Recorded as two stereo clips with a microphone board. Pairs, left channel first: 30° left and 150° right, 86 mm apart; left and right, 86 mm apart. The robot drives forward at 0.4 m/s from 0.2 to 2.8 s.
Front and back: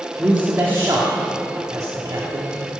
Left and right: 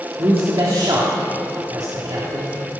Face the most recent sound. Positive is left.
turn(degrees=-125)